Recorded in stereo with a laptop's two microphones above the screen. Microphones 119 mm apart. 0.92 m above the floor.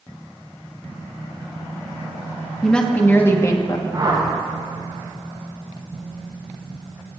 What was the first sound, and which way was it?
A woman speaking, 5° left (ahead or behind).